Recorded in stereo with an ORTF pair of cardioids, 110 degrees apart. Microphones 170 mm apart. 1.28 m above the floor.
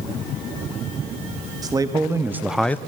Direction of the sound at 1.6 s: 20° right.